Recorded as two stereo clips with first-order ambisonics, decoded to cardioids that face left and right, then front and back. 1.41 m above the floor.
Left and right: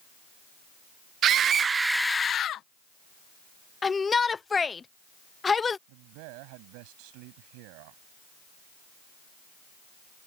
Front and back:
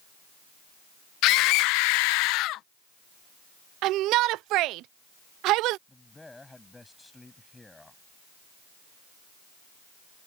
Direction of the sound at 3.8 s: 160° left.